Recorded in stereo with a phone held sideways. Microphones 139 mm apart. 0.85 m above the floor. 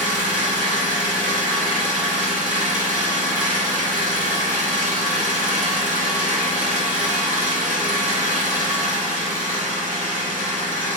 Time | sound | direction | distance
0.0 | an engine running | 80° right | 1.6 m